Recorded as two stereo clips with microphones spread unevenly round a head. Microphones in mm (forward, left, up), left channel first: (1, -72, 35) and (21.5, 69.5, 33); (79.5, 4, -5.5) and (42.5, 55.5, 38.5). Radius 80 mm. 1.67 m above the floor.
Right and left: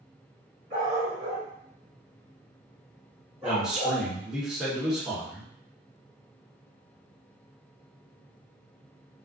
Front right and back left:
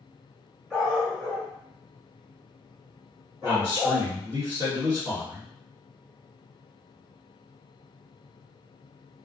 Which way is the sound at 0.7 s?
90° left.